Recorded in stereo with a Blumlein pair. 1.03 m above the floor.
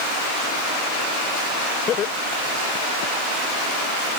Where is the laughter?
30° left; by 3.1 s 40° left.